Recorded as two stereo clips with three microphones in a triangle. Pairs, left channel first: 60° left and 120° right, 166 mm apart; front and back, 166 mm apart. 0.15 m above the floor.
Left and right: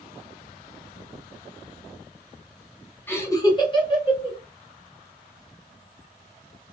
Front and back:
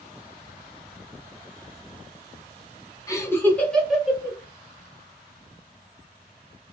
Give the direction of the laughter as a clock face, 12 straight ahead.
12 o'clock.